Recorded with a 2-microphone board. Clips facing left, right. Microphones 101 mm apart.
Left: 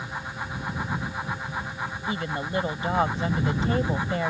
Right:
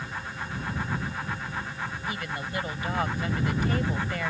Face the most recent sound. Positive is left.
turn(degrees=30)  # may be behind; listen again after turning